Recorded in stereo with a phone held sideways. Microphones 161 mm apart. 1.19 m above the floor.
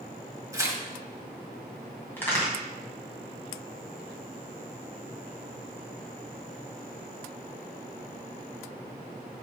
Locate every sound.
0.5 s tearing paper: 20° right (ahead or behind), 1.2 m
2.2 s a crack: 10° left (ahead or behind), 2.5 m